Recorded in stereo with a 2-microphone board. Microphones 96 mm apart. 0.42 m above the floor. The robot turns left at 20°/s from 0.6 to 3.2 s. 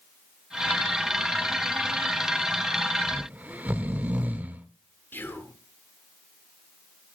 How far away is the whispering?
About 0.8 m.